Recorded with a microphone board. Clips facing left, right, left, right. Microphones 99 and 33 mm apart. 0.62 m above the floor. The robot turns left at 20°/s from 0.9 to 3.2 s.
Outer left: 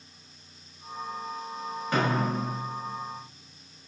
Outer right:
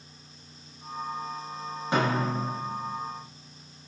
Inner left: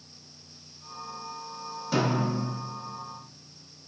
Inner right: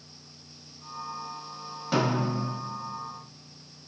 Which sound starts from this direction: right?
A snare drum, at 1.9 s.